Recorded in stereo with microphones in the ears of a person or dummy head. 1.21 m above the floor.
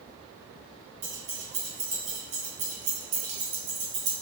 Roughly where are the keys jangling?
Right.